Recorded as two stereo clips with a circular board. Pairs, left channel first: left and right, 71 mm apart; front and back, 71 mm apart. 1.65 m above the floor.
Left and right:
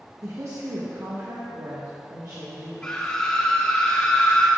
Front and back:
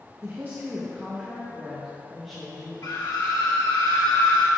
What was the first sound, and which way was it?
A woman speaking, 130° right.